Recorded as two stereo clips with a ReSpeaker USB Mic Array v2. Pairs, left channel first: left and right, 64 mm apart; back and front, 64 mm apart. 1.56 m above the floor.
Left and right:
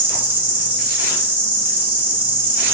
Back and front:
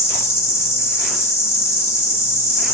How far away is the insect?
About 0.8 m.